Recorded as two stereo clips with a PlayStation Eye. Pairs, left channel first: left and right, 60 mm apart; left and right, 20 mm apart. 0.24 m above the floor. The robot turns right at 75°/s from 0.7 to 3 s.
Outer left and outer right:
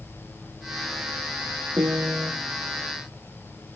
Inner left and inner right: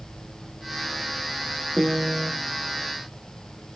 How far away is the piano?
About 1.3 m.